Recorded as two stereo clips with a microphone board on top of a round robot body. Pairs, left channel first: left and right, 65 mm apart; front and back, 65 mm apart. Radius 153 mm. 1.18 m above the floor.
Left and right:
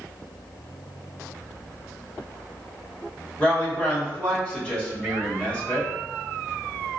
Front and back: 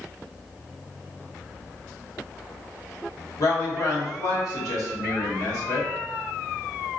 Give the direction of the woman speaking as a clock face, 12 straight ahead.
11 o'clock.